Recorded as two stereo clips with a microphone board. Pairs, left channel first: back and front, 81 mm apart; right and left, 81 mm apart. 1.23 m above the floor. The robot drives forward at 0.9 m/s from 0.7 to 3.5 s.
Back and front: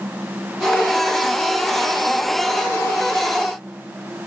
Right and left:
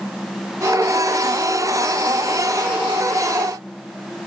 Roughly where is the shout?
No shout in this recording.